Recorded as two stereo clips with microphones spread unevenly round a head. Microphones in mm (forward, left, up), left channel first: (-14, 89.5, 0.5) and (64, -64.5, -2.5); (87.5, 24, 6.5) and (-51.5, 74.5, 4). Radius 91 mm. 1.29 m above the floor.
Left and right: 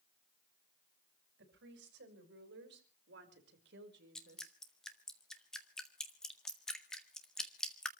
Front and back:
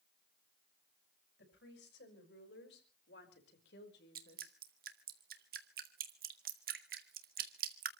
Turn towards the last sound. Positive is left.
turn(degrees=-155)